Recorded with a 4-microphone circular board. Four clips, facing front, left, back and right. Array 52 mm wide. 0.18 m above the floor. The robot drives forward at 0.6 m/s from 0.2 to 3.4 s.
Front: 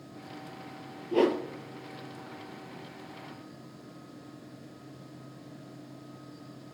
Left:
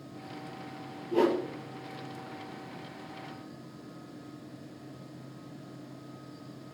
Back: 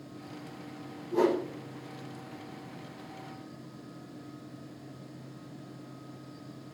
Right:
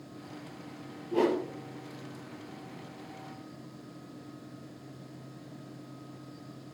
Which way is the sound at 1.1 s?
Straight ahead.